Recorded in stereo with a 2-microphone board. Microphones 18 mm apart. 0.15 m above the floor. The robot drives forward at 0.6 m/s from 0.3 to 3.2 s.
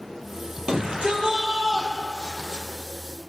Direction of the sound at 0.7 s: 55° right (ahead or behind).